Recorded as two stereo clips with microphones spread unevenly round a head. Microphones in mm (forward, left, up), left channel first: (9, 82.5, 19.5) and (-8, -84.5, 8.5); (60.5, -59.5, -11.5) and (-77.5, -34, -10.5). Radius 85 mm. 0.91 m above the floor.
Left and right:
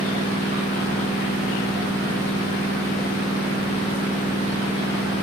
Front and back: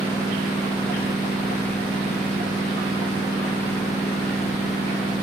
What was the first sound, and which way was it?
A machine running, 90° right.